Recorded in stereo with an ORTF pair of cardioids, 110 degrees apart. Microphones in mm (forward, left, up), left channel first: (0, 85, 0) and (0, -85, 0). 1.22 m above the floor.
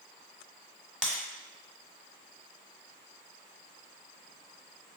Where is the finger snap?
I don't hear a finger snap.